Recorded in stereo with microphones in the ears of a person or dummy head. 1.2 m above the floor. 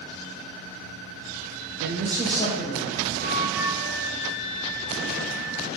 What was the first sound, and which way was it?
A man speaking, 60° right (ahead or behind).